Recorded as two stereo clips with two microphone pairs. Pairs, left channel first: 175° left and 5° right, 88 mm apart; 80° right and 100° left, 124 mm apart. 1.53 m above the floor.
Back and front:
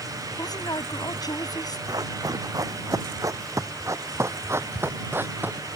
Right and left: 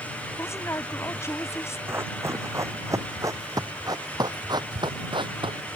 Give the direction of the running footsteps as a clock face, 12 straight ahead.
11 o'clock.